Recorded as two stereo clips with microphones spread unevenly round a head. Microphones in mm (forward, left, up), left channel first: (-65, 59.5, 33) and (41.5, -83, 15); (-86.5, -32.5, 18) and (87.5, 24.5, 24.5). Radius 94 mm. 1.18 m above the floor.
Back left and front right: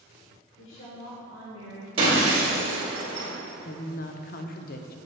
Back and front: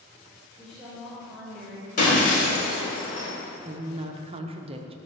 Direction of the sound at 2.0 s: 115° right.